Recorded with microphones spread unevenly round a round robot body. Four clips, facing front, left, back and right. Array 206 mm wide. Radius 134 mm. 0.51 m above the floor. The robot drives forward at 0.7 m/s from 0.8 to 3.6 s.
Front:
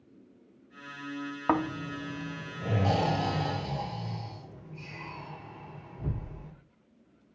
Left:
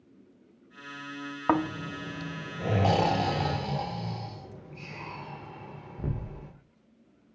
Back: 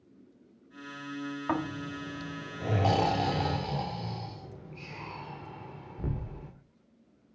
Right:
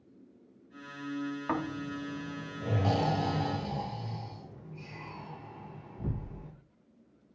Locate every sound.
1.5 s snoring: 55° left, 1.0 m; by 6.5 s 165° left, 1.6 m